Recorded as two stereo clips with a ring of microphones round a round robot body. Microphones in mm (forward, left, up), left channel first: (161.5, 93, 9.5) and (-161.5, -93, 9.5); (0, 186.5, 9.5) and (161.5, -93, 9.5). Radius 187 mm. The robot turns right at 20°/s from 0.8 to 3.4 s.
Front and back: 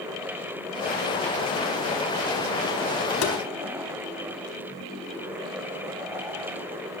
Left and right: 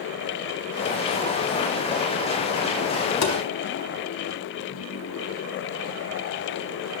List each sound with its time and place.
3.2 s tapping: 85° left, 4.5 m